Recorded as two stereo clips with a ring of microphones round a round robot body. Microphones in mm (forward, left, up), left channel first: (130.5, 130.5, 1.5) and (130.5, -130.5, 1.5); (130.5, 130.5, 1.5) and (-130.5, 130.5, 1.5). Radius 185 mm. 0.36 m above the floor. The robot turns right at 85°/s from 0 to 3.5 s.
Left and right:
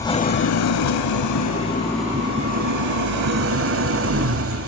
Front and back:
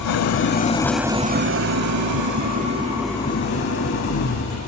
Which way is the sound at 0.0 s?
10° left.